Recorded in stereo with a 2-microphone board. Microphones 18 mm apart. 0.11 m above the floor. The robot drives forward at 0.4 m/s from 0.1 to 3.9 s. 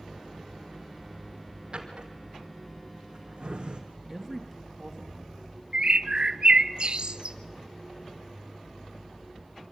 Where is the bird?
50° right (ahead or behind), 0.8 m.